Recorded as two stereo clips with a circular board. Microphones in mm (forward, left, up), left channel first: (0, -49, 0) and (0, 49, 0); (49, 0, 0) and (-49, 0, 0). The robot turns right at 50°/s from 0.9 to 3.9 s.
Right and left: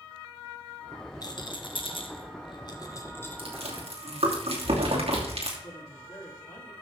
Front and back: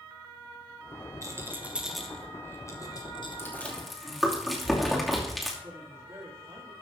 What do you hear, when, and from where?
1.2 s a rattle: 130° right, 1.3 m; by 3.4 s 20° right, 1.3 m
3.4 s chewing: 65° left, 3 m; by 5.5 s 90° left, 3 m
5.6 s a woman speaking: 140° right, 2.5 m